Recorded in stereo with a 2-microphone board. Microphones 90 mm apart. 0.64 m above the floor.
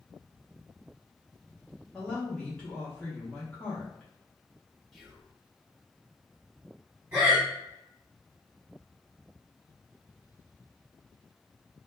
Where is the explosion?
I don't hear an explosion.